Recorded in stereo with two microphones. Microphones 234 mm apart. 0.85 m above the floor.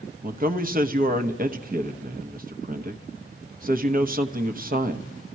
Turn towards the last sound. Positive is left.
turn(degrees=-35)  # may be behind; listen again after turning